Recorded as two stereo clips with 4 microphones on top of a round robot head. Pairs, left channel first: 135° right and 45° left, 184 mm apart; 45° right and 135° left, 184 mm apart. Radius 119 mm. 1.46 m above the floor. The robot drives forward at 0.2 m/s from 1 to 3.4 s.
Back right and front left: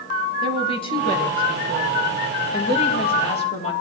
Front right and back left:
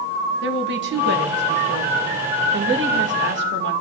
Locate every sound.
0.4 s a woman speaking: 160° left, 2 m; by 3.7 s 165° left, 2.5 m